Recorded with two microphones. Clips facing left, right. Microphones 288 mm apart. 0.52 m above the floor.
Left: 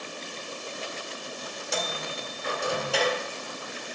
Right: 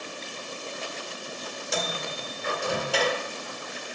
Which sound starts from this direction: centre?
A microwave, at 1.7 s.